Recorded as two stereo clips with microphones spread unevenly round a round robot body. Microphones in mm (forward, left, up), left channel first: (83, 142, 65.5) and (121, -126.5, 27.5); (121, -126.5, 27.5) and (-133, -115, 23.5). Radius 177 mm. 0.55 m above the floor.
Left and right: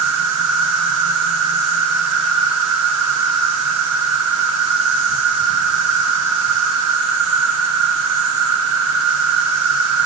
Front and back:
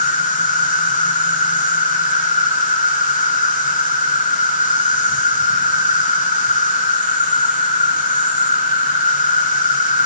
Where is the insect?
60° right, 3 m.